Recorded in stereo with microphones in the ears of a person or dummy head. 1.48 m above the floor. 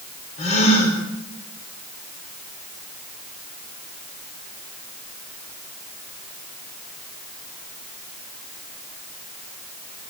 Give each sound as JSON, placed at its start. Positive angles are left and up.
{"t": 0.4, "sound": "a gasp", "side_deg": 30, "distance_m": 5.5}